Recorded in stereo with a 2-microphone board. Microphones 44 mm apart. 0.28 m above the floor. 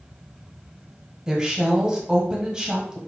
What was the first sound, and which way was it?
A woman speaking, 15° right (ahead or behind).